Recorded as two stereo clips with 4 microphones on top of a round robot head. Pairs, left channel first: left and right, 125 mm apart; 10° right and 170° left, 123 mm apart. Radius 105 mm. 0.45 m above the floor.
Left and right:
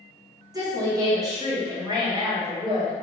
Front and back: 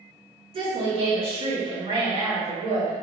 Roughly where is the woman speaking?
Behind right.